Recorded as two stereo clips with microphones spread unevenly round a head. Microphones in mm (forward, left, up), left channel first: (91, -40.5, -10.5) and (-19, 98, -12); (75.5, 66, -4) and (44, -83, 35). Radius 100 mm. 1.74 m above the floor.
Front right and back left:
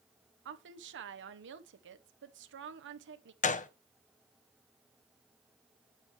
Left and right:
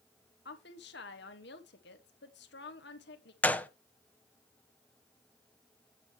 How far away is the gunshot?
About 0.8 m.